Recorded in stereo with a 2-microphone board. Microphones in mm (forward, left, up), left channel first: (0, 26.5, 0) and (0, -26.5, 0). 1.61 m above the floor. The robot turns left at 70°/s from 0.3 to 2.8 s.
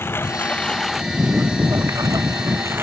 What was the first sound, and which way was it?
A lawn mower, 45° left (ahead or behind).